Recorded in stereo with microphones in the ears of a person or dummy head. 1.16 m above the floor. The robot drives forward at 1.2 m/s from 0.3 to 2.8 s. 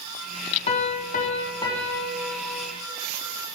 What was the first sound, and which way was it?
A piano, 30° left (ahead or behind).